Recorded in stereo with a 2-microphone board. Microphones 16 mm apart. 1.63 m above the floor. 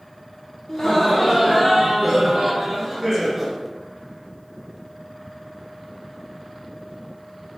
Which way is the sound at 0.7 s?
40° left (ahead or behind).